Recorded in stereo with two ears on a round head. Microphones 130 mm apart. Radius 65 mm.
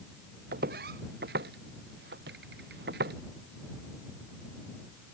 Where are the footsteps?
75° right (ahead or behind).